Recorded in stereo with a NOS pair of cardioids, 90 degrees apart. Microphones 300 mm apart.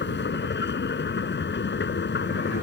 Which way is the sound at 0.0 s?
40° left.